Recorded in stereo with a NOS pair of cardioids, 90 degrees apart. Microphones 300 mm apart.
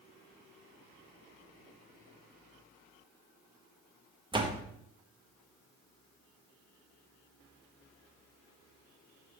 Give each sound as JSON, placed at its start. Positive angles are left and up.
{"t": 4.3, "sound": "a door slam", "azimuth_deg": -15, "distance_m": 1.3}